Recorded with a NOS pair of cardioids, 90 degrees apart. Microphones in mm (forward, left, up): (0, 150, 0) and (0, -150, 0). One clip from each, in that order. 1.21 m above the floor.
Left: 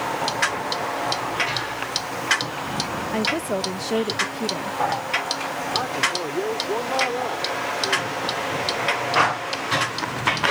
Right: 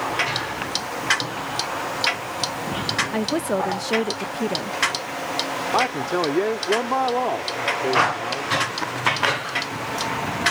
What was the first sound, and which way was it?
A woman speaking, 15° right.